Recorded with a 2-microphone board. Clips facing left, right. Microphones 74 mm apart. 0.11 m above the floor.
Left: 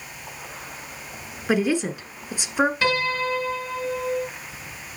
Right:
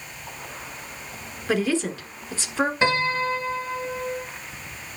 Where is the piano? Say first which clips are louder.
Right 1 dB; 25° right (ahead or behind), 1.4 m.